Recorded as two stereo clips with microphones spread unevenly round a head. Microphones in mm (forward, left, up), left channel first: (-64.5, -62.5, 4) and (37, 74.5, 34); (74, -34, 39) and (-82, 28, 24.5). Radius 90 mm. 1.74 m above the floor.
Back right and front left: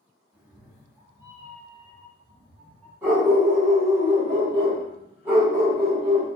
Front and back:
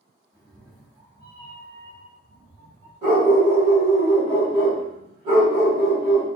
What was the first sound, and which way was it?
A cat meowing, 95° left.